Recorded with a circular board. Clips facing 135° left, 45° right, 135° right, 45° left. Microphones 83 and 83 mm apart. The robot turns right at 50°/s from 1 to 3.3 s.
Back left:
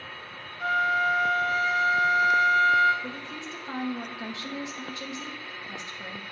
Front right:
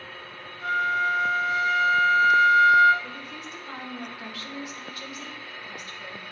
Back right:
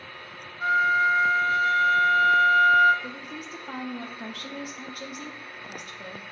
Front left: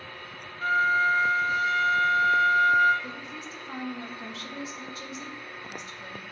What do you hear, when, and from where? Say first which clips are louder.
0.6 s a flute: even, back right 2 dB; 155° left, 1.2 m; by 2.9 s 110° right, 1.2 m
3.0 s a woman speaking: back left 2 dB, back right 1 dB; 170° right, 1.2 m; by 6.2 s 160° right, 1.2 m